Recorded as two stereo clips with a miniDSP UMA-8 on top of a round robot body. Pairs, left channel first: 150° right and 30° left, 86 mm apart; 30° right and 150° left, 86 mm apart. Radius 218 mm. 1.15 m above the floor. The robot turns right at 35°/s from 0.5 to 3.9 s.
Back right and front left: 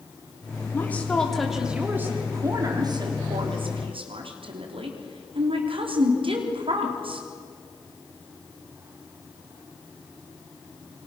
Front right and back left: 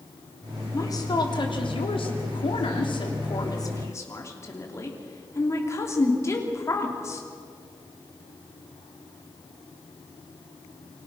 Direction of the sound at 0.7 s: 85° right.